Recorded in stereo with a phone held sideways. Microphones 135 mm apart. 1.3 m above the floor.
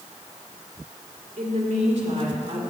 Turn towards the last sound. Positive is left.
turn(degrees=-45)  # may be behind; listen again after turning